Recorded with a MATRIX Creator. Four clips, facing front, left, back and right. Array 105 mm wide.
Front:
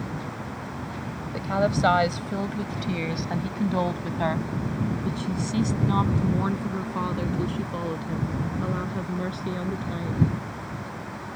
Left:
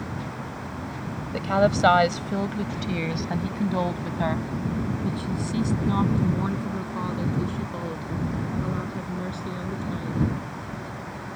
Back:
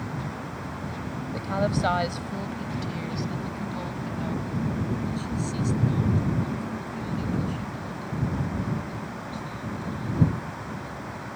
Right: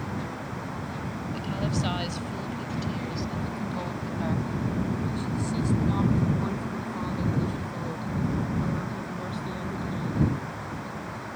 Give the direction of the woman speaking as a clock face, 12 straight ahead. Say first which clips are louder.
Left 11 dB, front 3 dB; 9 o'clock.